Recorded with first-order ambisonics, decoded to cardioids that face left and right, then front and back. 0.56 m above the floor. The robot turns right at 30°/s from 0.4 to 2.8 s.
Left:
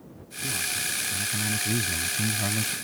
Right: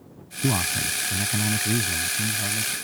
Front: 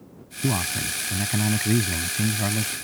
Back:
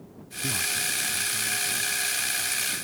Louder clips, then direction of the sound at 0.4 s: Right 4 dB, front 1 dB; 55° right.